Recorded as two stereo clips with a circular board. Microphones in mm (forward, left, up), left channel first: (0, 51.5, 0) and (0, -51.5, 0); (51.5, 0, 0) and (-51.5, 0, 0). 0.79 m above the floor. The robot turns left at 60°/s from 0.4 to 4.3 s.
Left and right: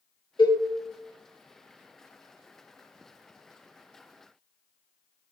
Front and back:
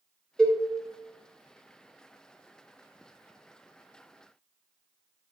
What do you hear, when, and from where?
0.4 s a cowbell: 85° left, 0.7 m; by 0.6 s 70° left, 0.7 m